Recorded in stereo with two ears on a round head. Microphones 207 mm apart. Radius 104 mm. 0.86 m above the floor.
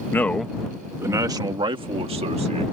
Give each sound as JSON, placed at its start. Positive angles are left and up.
{"t": 0.1, "sound": "a man speaking", "side_deg": 10}